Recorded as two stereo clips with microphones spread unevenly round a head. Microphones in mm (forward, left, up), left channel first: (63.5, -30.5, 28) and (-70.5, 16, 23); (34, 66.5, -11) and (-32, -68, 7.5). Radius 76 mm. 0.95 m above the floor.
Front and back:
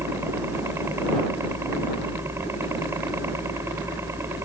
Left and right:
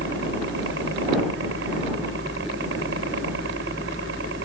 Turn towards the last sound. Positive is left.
turn(degrees=-125)